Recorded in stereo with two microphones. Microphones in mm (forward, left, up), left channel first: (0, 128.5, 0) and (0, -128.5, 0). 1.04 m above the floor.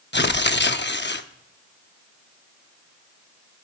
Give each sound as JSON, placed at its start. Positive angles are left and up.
{"t": 0.1, "sound": "tearing paper", "side_deg": 45, "distance_m": 0.7}